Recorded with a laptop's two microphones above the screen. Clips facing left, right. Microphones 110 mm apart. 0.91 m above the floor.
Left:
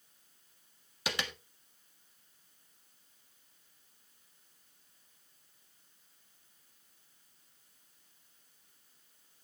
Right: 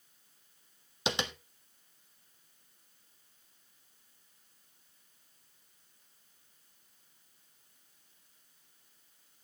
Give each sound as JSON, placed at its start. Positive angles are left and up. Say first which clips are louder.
{"t": 1.1, "sound": "tapping", "louder": "right 4 dB", "side_deg": -25, "distance_m": 1.4}